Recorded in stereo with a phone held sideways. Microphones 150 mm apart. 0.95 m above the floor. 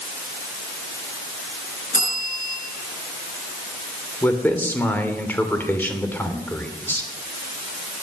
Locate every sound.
1.9 s a bell: 60° left (ahead or behind), 6.5 m
4.2 s a man speaking: 10° left (ahead or behind), 3 m